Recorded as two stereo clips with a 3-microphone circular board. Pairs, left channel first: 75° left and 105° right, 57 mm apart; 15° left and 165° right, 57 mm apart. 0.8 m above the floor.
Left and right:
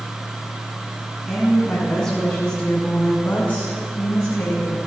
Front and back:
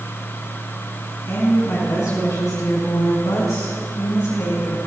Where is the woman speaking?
10° right, 6.5 m; by 4.8 s 30° left, 5 m.